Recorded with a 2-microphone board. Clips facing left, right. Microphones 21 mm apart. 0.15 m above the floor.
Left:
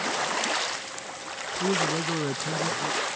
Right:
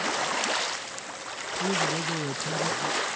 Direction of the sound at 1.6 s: 25° left (ahead or behind).